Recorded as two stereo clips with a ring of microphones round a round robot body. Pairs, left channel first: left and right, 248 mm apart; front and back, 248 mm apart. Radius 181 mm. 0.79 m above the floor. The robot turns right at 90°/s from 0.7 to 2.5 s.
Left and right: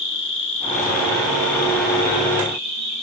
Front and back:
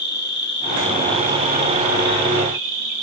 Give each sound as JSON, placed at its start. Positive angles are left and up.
{"t": 0.0, "sound": "an insect", "azimuth_deg": 50, "distance_m": 1.6}